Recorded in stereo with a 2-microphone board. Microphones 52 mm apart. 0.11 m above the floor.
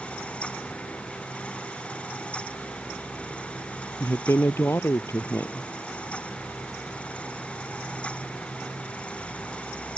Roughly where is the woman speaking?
Left.